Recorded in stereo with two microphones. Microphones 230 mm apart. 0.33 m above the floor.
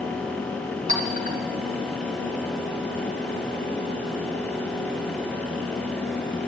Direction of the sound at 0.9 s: 35° right (ahead or behind).